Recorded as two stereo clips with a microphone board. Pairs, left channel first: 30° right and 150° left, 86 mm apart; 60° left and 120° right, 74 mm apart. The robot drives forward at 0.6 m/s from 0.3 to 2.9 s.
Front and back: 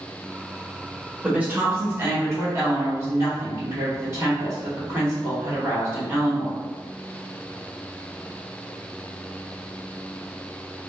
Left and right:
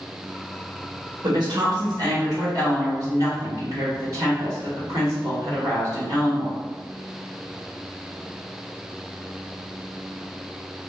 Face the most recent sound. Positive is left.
turn(degrees=-155)